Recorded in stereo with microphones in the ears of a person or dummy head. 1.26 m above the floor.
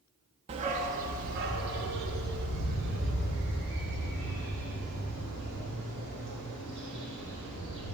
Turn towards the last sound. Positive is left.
turn(degrees=-60)  # may be behind; listen again after turning